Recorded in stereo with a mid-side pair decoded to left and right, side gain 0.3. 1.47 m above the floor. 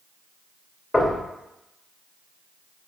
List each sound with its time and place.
0.9 s knocking: 30° left, 3 m